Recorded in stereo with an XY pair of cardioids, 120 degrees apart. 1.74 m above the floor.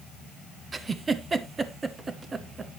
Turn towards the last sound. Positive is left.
turn(degrees=-25)